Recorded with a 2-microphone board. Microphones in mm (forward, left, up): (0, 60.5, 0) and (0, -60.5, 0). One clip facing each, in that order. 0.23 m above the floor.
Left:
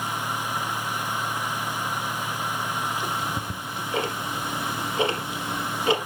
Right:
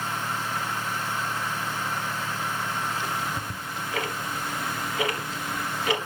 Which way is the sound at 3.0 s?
25° left (ahead or behind).